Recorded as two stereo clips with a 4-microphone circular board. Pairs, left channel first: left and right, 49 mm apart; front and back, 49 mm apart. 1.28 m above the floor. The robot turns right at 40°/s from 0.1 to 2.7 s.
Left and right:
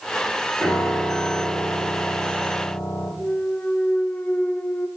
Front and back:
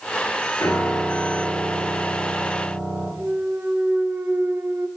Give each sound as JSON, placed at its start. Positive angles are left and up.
{"t": 0.6, "sound": "a piano", "azimuth_deg": 15, "distance_m": 8.0}
{"t": 3.2, "sound": "a clunk", "azimuth_deg": 145, "distance_m": 1.1}